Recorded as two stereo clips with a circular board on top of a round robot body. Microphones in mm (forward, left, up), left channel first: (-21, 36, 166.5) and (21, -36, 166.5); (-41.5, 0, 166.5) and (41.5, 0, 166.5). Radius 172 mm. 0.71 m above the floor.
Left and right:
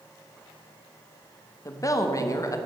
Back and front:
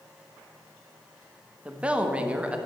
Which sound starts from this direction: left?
A woman speaking, at 1.6 s.